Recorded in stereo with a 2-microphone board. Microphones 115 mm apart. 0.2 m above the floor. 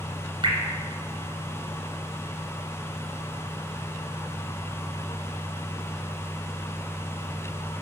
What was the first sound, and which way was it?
Dripping, 45° right (ahead or behind).